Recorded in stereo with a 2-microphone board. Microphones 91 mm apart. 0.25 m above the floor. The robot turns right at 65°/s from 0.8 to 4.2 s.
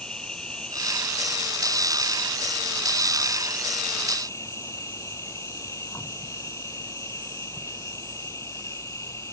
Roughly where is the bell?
I don't hear a bell.